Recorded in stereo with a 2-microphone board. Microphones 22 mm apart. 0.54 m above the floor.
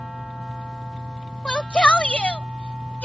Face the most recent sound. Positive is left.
turn(degrees=70)  # may be behind; listen again after turning